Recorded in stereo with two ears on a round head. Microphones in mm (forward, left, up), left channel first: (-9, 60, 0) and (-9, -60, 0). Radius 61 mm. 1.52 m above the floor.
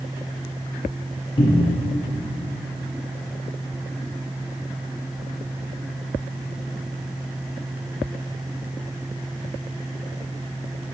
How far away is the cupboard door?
About 0.5 m.